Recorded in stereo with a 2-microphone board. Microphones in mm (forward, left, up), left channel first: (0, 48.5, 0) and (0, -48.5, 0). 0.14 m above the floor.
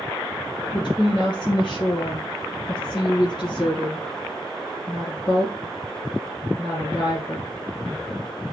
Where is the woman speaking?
55° left (ahead or behind), 2.5 m.